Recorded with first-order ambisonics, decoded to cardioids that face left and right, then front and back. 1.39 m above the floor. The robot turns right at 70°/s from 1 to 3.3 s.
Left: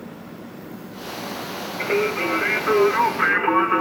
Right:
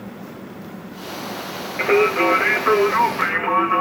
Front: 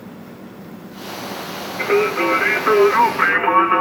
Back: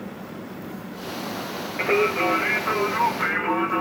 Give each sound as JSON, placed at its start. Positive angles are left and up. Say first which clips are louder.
{"t": 1.8, "sound": "singing", "louder": "right 6 dB, front 4 dB", "azimuth_deg": -115, "distance_m": 1.1}